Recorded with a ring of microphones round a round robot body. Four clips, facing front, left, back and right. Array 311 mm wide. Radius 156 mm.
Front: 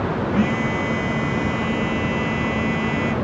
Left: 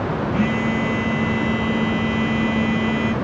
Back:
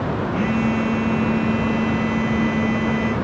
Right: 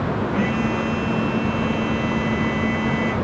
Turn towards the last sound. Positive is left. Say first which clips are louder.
# left 2 dB, back 2 dB
turn(degrees=20)